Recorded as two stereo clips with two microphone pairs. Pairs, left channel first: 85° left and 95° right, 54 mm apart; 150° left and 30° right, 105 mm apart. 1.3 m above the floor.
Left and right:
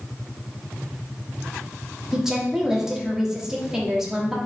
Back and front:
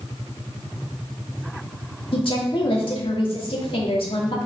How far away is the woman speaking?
About 2.5 m.